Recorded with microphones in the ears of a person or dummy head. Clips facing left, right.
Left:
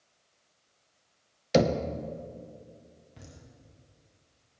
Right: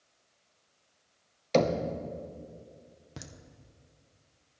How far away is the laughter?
About 1.0 m.